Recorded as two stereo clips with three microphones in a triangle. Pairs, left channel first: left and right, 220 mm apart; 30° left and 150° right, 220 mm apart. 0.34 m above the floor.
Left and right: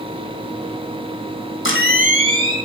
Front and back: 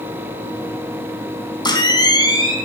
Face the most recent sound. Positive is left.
turn(degrees=100)